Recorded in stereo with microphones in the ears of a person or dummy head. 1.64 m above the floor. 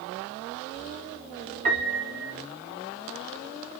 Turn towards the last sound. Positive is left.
turn(degrees=-50)  # may be behind; listen again after turning